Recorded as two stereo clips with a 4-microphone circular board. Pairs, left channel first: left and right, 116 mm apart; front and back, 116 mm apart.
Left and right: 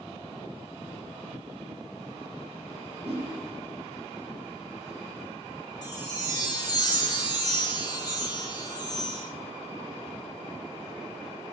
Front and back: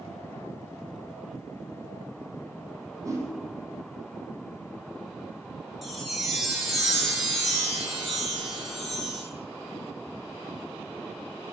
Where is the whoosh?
120° right, 0.8 m.